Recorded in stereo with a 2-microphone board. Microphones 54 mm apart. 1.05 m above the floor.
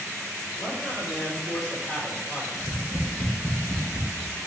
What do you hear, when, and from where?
0.6 s a man speaking: 35° left (ahead or behind), 4 m
2.5 s tapping: 65° left (ahead or behind), 2.5 m